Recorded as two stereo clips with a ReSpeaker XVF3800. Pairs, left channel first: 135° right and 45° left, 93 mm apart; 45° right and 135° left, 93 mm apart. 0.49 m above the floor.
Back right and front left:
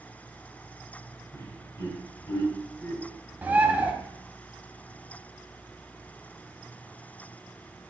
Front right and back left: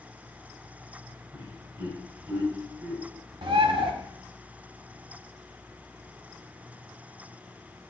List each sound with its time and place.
1.3 s laughter: 175° right, 2.5 m
3.4 s a bird: 115° left, 1.2 m